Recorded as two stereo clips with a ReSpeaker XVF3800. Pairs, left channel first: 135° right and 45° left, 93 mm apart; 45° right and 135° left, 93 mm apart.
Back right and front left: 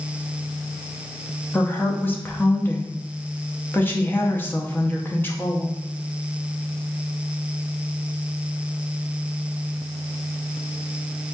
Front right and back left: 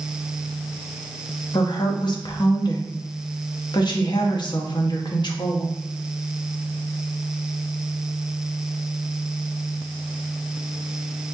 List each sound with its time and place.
1.5 s a woman speaking: 70° right, 0.7 m